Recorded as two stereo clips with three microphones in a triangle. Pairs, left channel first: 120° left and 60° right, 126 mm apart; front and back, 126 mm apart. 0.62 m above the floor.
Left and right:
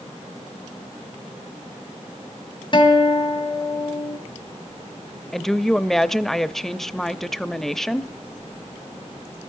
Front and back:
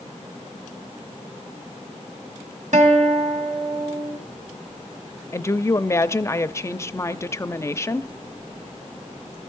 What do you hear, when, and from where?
2.7 s a guitar: 165° left, 2.5 m
5.3 s a woman speaking: 35° left, 0.6 m